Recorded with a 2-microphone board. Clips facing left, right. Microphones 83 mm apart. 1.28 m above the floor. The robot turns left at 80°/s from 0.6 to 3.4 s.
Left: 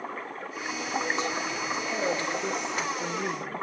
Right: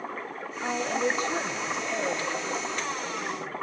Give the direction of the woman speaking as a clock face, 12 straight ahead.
3 o'clock.